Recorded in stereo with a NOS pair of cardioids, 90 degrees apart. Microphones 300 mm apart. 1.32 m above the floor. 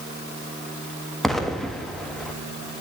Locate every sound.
1.2 s an explosion: straight ahead, 1.7 m